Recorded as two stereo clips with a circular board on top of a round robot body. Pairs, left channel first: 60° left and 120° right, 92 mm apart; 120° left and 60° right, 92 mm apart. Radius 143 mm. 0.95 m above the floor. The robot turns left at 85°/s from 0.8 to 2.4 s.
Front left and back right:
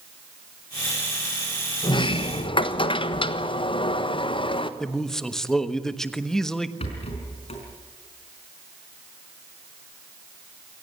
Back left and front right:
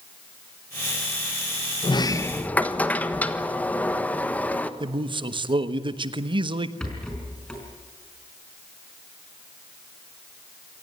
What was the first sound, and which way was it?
A sliding door, 95° left.